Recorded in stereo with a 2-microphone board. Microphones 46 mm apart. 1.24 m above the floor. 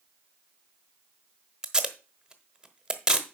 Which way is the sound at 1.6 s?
15° right (ahead or behind).